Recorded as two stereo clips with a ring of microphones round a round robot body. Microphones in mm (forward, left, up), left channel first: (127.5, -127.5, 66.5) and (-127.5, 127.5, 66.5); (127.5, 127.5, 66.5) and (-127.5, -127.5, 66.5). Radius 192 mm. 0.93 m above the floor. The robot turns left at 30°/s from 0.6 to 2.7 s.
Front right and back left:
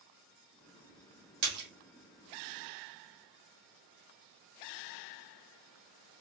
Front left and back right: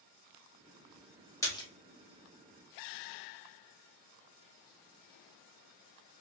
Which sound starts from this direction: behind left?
A splash, at 1.4 s.